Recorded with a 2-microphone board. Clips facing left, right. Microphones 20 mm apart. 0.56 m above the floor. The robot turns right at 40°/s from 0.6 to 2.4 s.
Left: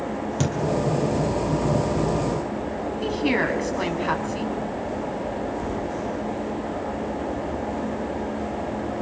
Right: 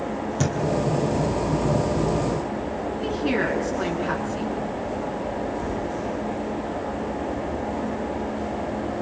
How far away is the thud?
About 3.5 m.